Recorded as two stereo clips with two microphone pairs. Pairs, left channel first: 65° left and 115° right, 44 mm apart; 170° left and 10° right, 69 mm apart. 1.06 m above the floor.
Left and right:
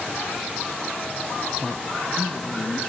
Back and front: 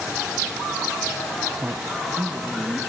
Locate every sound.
1.6 s a woman speaking: 10° right, 0.6 m; by 2.8 s 50° left, 1.8 m